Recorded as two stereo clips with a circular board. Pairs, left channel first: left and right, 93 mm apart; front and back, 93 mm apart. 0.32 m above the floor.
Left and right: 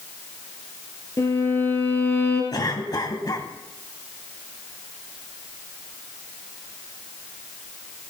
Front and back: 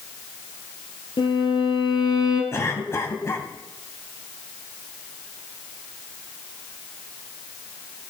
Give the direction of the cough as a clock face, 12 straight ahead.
10 o'clock.